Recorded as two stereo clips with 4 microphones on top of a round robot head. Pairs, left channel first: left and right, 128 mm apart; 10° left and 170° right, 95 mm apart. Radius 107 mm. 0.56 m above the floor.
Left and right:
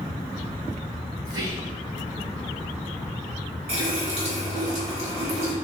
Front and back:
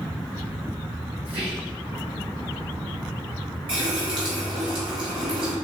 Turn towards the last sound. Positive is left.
turn(degrees=-135)